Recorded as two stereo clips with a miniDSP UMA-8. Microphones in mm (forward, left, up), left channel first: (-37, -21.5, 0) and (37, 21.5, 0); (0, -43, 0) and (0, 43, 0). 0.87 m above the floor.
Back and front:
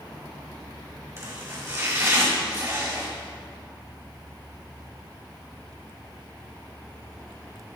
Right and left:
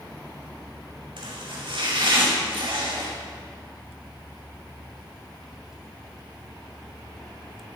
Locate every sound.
1.2 s chopping: 85° left, 5 m